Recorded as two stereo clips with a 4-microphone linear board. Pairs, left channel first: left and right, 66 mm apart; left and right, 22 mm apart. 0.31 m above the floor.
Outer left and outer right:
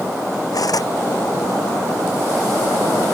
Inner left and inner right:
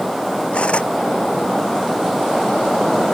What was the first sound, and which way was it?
Cutlery clinking, 70° left (ahead or behind).